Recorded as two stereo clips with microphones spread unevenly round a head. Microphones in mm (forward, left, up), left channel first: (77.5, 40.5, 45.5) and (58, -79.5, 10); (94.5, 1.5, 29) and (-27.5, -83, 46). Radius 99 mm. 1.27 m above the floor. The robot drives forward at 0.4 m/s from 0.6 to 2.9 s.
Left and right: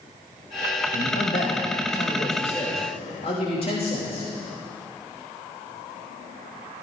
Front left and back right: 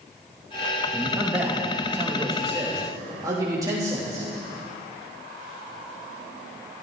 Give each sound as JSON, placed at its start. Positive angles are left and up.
{"t": 0.9, "sound": "a man speaking", "azimuth_deg": 125, "distance_m": 1.8}